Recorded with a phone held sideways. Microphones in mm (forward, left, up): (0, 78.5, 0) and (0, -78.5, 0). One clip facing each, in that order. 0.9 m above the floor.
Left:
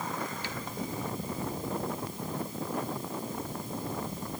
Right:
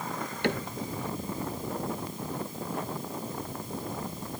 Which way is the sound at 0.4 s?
75° right (ahead or behind).